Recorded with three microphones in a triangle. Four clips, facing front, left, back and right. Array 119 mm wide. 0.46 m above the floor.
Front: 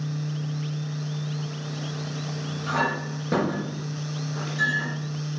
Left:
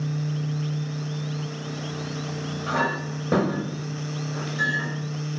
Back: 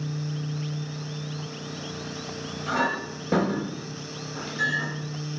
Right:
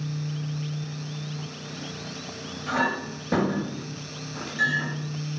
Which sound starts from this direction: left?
A clink, at 2.7 s.